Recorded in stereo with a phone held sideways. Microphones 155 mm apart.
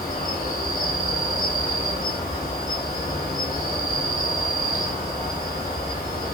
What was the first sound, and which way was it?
An insect, 70° left (ahead or behind).